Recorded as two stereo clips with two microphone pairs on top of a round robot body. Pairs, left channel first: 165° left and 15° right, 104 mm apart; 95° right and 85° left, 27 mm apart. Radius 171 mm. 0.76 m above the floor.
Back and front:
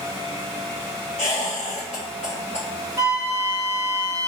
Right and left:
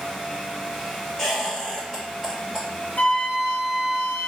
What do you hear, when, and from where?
1.2 s a squeak: 175° left, 0.5 m
3.0 s a flute: 75° right, 0.7 m